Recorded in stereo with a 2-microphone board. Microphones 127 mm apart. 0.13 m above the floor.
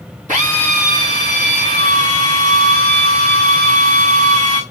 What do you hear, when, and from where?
0.3 s a drill: 80° right, 5.5 m